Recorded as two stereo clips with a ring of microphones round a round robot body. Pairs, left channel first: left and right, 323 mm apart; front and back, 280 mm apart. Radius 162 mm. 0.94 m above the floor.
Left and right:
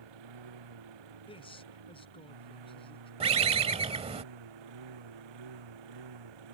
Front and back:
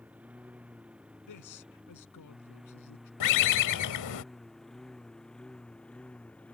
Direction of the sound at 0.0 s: 95° right.